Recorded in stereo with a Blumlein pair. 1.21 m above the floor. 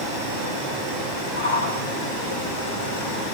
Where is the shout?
60° left, 8 m.